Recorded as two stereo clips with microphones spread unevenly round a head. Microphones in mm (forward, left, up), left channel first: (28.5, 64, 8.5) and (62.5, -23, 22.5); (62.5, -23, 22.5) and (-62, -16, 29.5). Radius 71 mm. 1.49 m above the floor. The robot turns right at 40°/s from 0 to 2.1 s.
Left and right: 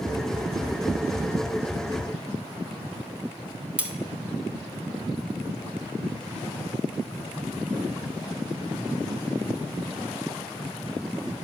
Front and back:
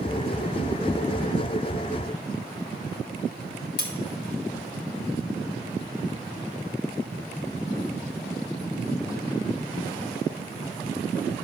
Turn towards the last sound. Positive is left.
turn(degrees=0)